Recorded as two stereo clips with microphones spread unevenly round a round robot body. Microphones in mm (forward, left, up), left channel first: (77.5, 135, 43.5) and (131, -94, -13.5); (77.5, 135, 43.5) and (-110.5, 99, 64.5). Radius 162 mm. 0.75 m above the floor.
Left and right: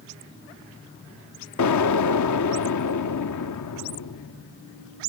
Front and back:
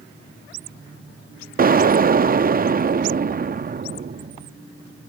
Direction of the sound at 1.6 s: 140° left.